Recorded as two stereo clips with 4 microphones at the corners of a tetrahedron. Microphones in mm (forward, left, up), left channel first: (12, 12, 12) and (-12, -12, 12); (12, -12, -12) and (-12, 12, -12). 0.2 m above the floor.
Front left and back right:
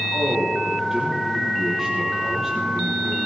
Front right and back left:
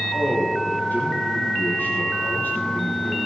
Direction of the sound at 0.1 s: 55° right.